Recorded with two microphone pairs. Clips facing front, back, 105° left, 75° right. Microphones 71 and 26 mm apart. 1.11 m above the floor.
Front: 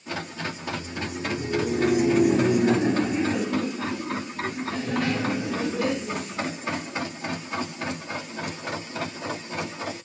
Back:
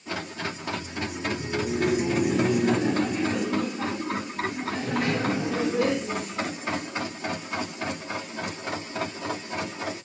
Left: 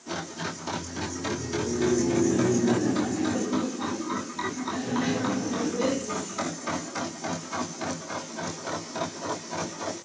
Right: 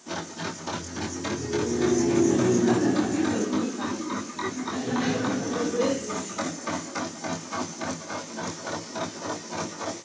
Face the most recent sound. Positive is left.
turn(degrees=-125)